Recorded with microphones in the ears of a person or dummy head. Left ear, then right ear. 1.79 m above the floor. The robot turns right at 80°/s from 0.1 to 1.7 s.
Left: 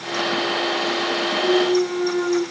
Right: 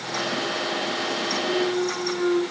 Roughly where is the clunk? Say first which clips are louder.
Left 8 dB; left.